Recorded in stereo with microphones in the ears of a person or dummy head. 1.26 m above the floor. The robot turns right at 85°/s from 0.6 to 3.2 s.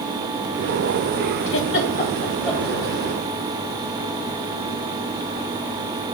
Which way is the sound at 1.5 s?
55° left (ahead or behind).